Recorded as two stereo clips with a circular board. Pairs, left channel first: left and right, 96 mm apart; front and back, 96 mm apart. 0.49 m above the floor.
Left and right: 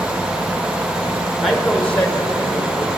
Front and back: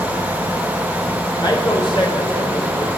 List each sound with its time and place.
1.4 s a man speaking: straight ahead, 1.9 m; by 3.0 s 35° left, 3.5 m